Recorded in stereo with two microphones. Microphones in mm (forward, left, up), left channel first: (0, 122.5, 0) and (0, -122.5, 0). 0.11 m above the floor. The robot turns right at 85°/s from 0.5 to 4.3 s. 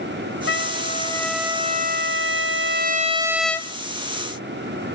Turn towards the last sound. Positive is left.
turn(degrees=75)